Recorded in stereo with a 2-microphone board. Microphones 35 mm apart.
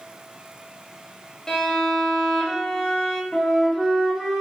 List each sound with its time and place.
1.5 s a violin: 15° left (ahead or behind), 0.7 m
3.3 s a flute: centre (ahead or behind), 1.4 m